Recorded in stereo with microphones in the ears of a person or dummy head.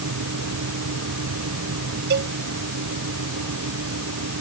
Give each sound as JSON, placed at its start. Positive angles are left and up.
{"t": 0.0, "sound": "a fan", "side_deg": -80}
{"t": 2.1, "sound": "a cowbell", "side_deg": -55}